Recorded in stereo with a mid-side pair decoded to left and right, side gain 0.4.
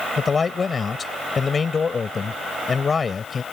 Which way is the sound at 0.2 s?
40° left.